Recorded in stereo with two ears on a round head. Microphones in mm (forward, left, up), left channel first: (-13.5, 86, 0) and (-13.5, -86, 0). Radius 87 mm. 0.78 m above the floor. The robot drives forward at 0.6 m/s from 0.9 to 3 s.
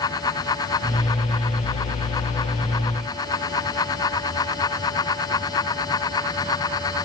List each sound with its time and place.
Only background noise.